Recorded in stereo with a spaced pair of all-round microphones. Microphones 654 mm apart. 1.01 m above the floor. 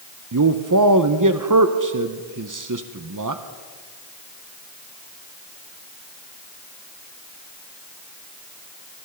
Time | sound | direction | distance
0.3 | a man speaking | 30° right (ahead or behind) | 0.7 m